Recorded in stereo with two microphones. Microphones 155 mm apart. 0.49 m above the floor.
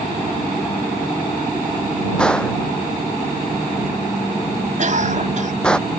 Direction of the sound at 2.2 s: 5° left (ahead or behind).